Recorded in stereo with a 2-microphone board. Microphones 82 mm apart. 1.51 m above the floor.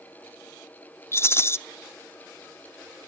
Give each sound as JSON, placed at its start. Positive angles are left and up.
{"t": 1.1, "sound": "a rattle", "side_deg": 30, "distance_m": 0.6}